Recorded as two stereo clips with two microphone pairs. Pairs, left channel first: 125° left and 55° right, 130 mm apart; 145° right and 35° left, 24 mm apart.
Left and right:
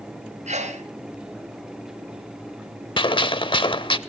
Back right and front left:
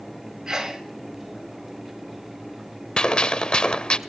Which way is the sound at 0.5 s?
30° right.